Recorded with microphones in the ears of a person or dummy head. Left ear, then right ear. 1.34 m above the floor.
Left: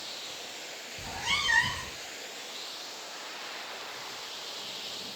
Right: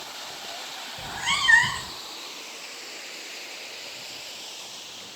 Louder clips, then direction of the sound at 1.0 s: Right 4 dB; 40° right (ahead or behind).